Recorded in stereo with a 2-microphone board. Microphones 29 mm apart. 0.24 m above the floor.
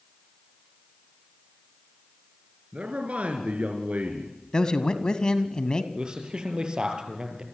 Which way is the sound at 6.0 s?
30° right (ahead or behind).